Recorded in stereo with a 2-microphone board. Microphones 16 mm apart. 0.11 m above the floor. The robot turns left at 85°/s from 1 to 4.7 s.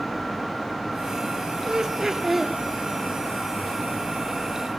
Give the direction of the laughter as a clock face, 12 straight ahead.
3 o'clock.